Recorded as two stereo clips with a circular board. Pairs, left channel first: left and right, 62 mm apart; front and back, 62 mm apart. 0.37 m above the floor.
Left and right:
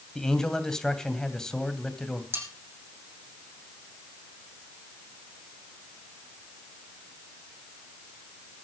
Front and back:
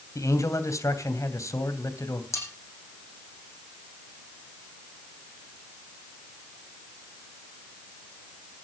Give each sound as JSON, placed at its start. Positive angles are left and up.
{"t": 0.1, "sound": "a man speaking", "azimuth_deg": 10, "distance_m": 2.5}
{"t": 2.3, "sound": "cutlery clinking", "azimuth_deg": -40, "distance_m": 10.0}